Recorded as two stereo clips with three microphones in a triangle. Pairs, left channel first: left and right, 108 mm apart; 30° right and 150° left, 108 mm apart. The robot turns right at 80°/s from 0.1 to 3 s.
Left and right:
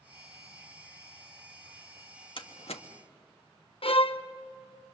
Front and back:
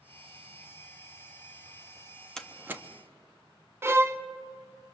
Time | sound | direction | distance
2.4 | a door slam | 50° left | 1.1 m
3.8 | a violin | 90° left | 0.6 m